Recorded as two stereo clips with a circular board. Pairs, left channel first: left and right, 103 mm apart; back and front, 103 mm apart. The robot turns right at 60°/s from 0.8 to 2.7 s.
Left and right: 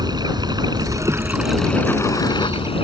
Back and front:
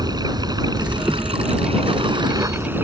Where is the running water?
45° right; by 2.8 s 70° left.